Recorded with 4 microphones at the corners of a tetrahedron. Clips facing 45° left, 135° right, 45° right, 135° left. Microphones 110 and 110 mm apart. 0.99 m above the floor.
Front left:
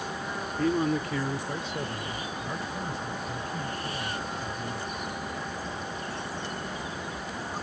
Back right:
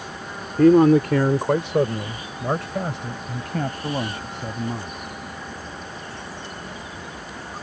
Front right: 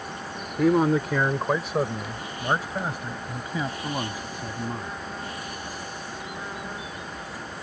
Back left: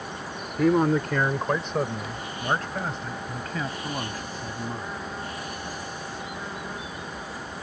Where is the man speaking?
130° right; by 5.0 s 120° right.